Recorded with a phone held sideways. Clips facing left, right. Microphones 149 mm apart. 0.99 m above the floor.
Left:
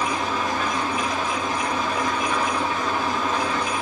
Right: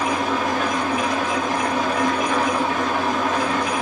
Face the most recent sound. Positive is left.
turn(degrees=-65)  # may be behind; listen again after turning